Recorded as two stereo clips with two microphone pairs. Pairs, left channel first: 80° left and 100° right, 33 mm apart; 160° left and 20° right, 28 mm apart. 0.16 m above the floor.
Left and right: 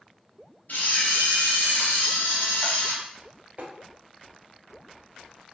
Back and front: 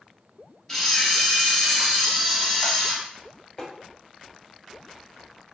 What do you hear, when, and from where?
0.7 s a camera shutter: 80° left, 1.4 m
3.6 s tapping: 145° right, 1.3 m